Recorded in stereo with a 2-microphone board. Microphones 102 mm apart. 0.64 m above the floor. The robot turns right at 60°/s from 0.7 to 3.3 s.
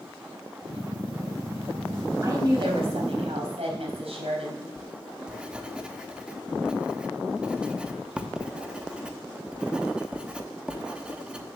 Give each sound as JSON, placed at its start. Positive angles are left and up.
{"t": 2.2, "sound": "a woman speaking", "azimuth_deg": -150, "distance_m": 3.5}
{"t": 4.8, "sound": "writing", "side_deg": -10, "distance_m": 0.7}